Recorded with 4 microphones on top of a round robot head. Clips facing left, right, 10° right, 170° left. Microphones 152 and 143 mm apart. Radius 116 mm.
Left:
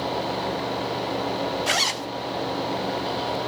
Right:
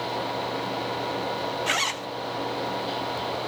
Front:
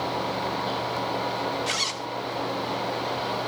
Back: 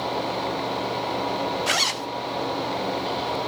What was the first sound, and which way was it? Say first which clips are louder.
A zipper: left 3 dB, back 4 dB; 145° left.